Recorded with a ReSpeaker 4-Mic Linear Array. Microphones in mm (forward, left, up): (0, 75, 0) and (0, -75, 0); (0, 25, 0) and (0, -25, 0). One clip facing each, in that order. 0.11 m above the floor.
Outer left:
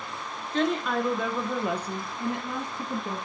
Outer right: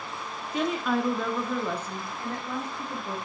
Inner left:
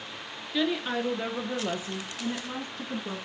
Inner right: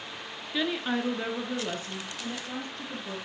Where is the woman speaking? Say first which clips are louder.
Outer left 1 dB, inner left 1 dB; 10° right (ahead or behind), 1.4 m; by 3.2 s 25° left (ahead or behind), 3 m.